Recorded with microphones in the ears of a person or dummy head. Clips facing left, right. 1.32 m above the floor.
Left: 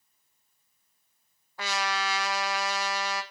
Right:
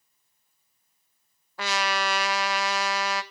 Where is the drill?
No drill in this recording.